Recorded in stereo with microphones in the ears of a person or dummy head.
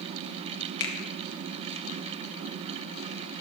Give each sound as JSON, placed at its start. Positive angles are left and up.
{"t": 0.8, "sound": "a finger snap", "side_deg": 60, "distance_m": 1.7}